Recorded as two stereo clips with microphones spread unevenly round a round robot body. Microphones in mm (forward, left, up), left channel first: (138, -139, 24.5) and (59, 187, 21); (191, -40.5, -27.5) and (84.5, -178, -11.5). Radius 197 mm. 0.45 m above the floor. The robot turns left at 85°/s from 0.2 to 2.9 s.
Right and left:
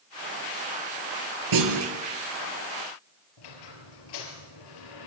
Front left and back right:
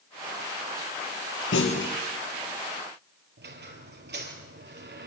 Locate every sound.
1.5 s a clunk: 90° left, 3.5 m; by 1.9 s 55° left, 3.5 m
3.4 s a squeak: 110° right, 4 m